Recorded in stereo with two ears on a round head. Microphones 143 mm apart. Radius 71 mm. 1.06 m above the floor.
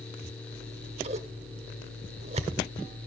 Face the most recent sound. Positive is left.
turn(degrees=-40)  # may be behind; listen again after turning